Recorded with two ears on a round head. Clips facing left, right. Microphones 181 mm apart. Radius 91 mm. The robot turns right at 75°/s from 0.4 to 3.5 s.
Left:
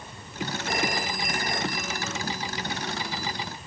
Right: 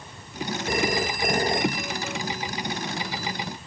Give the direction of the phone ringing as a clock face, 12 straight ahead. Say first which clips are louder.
Right 5 dB; 3 o'clock.